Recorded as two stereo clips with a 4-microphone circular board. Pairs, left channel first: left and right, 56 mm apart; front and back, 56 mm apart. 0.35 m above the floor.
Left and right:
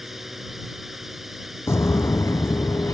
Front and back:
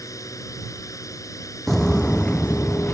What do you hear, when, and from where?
0.0 s a drone: 5° right
1.7 s footsteps: 85° left; by 2.9 s 55° left